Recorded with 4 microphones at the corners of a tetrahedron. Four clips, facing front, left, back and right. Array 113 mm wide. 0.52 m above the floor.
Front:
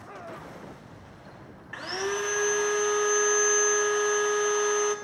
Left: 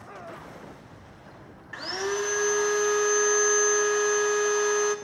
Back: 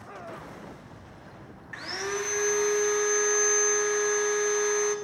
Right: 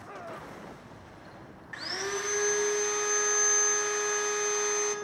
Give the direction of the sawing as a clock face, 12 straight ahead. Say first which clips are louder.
Left 5 dB, front 2 dB; 10 o'clock.